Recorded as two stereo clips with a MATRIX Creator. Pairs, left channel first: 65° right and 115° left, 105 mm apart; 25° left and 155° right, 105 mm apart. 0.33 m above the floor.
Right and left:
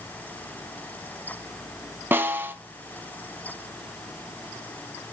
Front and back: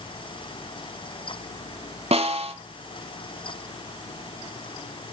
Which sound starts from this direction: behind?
A snare drum, at 2.1 s.